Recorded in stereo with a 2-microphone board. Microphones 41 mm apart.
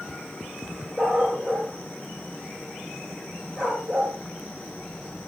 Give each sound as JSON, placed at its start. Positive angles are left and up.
{"t": 1.0, "sound": "a dog barking", "side_deg": 10, "distance_m": 5.5}